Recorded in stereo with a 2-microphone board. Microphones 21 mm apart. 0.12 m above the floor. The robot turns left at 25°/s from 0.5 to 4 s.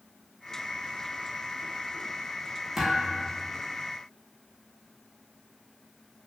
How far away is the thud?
About 1.4 m.